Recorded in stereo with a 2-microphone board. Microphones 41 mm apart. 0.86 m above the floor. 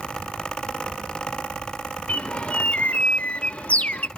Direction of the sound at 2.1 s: 35° left (ahead or behind).